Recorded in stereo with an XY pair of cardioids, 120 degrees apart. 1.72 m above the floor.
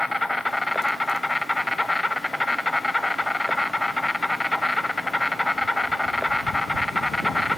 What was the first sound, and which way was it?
An insect, 10° left.